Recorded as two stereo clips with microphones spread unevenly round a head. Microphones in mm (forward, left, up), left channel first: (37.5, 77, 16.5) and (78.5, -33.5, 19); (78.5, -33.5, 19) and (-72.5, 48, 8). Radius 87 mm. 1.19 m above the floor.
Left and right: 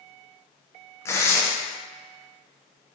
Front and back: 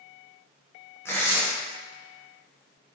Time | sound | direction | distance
1.1 | tearing paper | 45° left | 0.7 m